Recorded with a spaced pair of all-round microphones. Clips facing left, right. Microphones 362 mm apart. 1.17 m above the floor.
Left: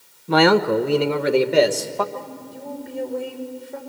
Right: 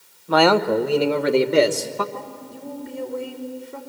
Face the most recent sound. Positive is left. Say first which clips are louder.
# left 1 dB
turn(degrees=-10)  # may be behind; listen again after turning